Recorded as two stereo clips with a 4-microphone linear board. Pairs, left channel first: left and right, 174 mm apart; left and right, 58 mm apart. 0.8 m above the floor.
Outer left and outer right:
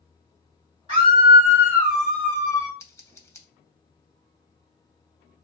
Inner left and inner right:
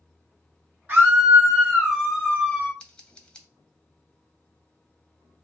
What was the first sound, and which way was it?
A scream, 35° right (ahead or behind).